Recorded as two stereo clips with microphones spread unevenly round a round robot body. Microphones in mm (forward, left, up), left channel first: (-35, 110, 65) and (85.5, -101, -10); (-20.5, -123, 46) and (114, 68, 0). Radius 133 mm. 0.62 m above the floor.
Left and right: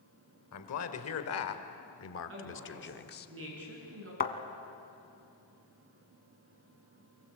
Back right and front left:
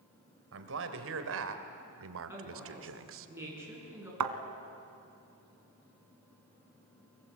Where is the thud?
65° left, 1.8 m.